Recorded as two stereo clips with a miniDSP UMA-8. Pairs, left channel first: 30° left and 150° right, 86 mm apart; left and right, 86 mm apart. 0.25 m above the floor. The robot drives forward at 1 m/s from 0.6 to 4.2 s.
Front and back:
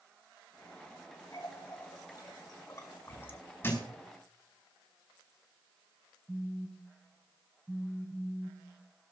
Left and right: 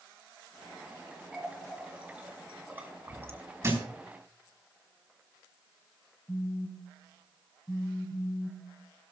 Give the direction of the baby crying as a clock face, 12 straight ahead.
No baby crying in this recording.